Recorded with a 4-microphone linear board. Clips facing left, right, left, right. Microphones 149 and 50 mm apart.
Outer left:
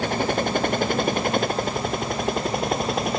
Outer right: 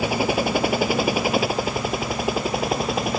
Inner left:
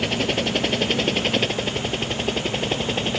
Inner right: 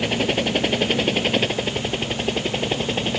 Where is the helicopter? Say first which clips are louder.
Outer right 2 dB, inner right 1 dB; 10° right (ahead or behind); by 3.2 s 5° right (ahead or behind).